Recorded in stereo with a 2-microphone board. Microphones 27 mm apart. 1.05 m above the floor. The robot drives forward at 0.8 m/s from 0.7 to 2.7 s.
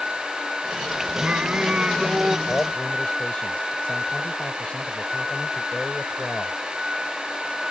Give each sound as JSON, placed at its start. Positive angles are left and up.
{"t": 1.2, "sound": "singing", "side_deg": -60}
{"t": 2.5, "sound": "a man speaking", "side_deg": 45}